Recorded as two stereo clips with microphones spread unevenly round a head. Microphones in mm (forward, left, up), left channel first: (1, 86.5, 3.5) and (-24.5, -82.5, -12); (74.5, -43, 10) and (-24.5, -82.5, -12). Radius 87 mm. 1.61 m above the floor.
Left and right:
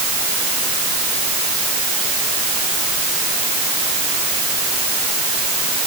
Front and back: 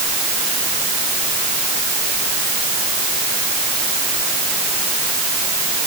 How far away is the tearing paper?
I don't hear tearing paper.